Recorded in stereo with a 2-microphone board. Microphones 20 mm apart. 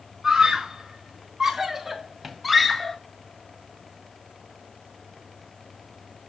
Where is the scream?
25° right (ahead or behind), 4 m; by 3.0 s 15° left (ahead or behind), 1.8 m.